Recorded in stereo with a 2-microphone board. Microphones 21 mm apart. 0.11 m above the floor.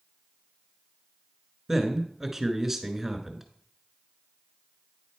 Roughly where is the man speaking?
Centre.